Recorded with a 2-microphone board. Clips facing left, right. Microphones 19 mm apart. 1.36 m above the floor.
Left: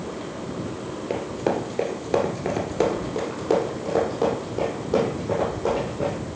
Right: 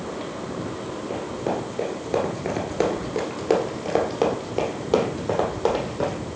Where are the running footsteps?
30° left (ahead or behind), 1.5 m; by 6.1 s 65° right (ahead or behind), 3 m.